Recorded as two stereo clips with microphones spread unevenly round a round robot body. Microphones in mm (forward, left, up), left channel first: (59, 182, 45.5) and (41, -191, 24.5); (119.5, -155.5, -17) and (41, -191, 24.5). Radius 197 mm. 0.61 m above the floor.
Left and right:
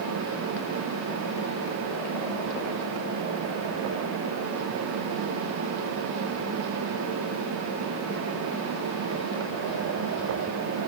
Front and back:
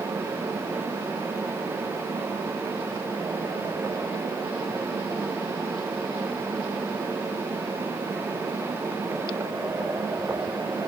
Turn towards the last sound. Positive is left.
No sound to turn to.